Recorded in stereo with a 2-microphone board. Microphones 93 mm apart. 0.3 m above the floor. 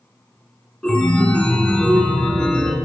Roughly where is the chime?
Centre.